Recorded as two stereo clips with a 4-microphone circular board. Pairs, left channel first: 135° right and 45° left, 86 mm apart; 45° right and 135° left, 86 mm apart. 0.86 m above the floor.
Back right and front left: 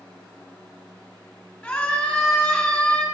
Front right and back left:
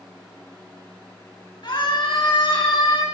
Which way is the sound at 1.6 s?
55° right.